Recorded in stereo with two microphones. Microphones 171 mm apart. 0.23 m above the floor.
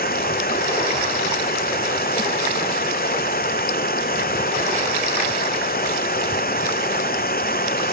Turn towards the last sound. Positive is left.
turn(degrees=60)  # may be behind; listen again after turning